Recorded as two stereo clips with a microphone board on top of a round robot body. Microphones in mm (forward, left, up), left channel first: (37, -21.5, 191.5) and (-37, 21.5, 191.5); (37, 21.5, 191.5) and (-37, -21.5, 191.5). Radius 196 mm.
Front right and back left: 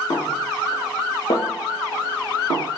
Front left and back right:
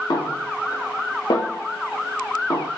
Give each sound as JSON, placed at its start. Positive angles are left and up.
{"t": 0.1, "sound": "a snare drum", "azimuth_deg": -5, "distance_m": 1.2}